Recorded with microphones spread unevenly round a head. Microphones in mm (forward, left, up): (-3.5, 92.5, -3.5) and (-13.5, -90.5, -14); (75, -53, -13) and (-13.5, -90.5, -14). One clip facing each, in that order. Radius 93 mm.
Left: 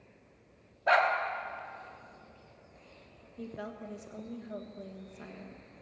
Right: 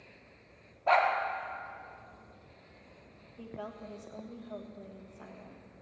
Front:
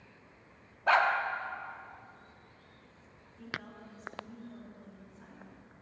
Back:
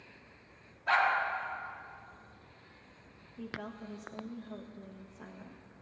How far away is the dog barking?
About 1.4 m.